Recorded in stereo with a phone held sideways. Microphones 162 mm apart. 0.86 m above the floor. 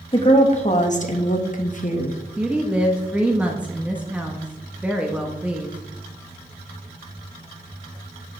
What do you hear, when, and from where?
0.1 s a woman speaking: 40° left (ahead or behind), 1.2 m; by 2.2 s 50° left (ahead or behind), 1.3 m
2.4 s a woman speaking: 5° right (ahead or behind), 0.9 m